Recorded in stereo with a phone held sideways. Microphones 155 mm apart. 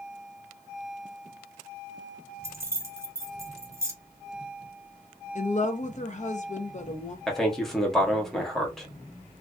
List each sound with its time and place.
2.4 s keys jangling: 15° right (ahead or behind), 0.6 m
5.3 s a woman speaking: 50° left (ahead or behind), 0.6 m
7.3 s a man speaking: centre (ahead or behind), 0.9 m